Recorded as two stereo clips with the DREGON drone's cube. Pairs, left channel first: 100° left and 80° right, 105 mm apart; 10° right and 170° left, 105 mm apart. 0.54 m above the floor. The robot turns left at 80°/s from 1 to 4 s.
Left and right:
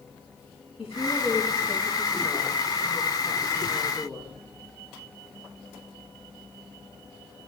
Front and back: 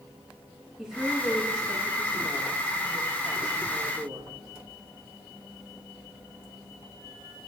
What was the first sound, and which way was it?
A woman speaking, 85° left.